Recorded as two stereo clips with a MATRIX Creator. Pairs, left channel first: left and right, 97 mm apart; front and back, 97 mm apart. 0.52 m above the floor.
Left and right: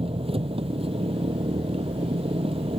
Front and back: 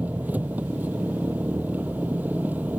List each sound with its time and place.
0.0 s an engine running: 105° right